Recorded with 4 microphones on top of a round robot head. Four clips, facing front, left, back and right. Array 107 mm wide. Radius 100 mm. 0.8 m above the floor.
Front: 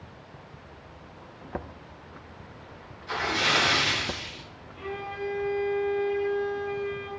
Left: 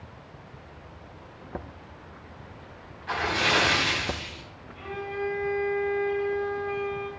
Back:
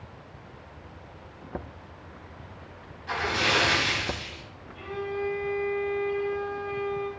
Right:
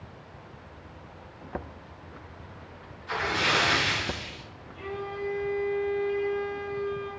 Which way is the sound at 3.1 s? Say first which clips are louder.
Left 1 dB, even; 110° left.